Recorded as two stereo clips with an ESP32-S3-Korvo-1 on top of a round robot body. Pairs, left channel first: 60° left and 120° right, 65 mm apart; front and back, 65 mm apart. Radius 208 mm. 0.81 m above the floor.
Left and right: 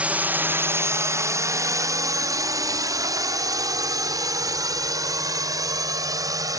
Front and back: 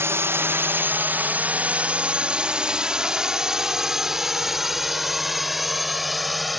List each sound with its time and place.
0.0 s a drone: 175° right; by 6.6 s 90° right